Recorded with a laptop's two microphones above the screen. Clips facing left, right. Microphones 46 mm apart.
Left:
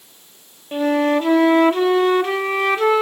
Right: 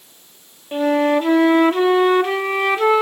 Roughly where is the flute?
Centre.